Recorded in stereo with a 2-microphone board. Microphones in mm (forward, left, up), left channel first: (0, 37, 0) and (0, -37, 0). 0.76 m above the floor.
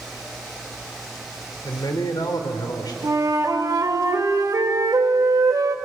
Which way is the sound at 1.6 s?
70° left (ahead or behind).